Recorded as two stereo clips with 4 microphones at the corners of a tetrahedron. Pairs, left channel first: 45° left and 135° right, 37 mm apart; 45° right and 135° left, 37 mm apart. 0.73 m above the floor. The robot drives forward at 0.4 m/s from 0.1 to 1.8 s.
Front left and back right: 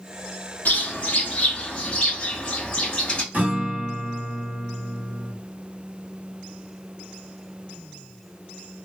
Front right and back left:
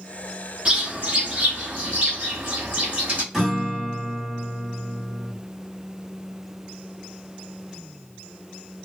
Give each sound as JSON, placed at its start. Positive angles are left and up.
{"t": 0.7, "sound": "a bird", "azimuth_deg": 85, "distance_m": 1.1}
{"t": 3.3, "sound": "a guitar", "azimuth_deg": -150, "distance_m": 1.4}